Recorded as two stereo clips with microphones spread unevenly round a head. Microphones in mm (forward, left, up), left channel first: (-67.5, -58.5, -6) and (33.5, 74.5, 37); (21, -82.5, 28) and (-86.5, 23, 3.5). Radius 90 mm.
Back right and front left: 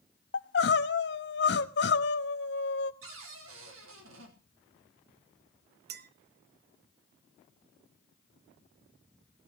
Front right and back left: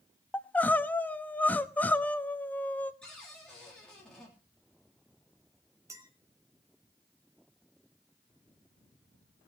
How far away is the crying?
About 0.8 m.